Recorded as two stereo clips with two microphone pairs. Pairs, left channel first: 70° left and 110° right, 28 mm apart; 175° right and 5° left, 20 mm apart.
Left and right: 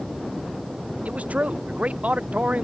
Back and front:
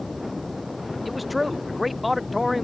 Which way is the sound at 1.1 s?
80° right.